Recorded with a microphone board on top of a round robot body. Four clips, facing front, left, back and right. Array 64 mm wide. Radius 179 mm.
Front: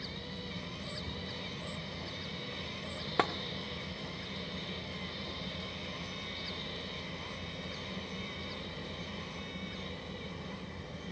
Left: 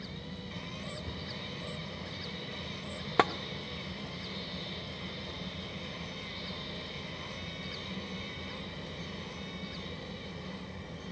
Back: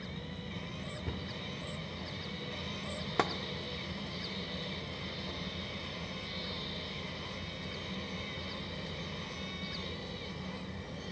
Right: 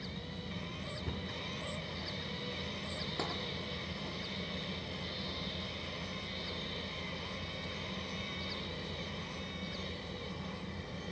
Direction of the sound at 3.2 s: 80° left.